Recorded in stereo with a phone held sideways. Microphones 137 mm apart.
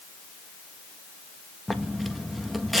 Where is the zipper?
Centre (ahead or behind), 1.5 m.